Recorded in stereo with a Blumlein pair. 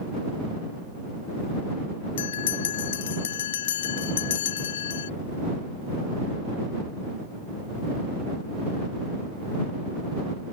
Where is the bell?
60° left.